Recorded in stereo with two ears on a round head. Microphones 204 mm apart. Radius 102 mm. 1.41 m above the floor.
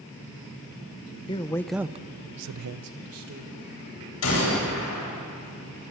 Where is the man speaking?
20° left (ahead or behind), 1.0 m; by 3.6 s 65° right (ahead or behind), 1.7 m.